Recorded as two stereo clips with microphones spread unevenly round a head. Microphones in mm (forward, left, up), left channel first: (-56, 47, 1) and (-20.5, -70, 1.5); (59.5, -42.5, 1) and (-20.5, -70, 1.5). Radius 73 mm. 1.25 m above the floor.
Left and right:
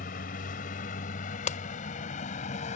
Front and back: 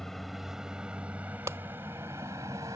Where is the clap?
125° left.